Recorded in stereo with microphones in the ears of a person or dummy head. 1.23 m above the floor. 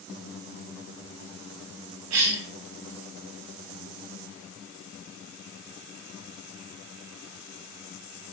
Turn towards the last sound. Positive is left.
turn(degrees=-75)  # may be behind; listen again after turning